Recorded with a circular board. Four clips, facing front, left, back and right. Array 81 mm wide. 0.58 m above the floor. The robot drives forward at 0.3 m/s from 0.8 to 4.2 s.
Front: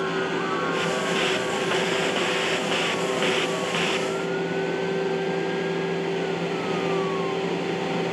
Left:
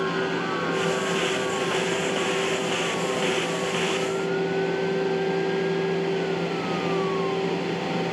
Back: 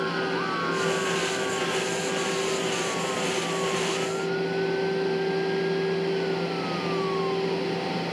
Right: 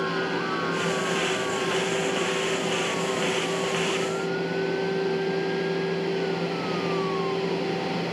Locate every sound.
Only background noise.